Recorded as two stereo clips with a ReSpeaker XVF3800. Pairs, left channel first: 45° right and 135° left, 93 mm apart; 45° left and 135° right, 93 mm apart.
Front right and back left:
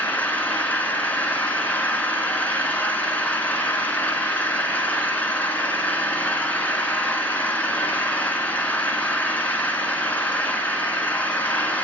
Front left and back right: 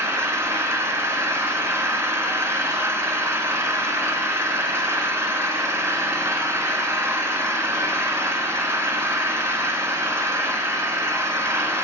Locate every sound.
0.0 s an engine running: 100° right, 1.2 m